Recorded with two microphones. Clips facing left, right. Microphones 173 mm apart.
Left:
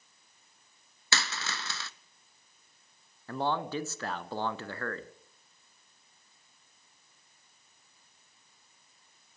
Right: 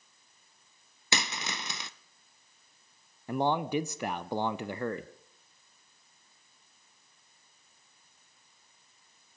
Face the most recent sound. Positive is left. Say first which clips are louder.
# right 3 dB
turn(degrees=-15)  # may be behind; listen again after turning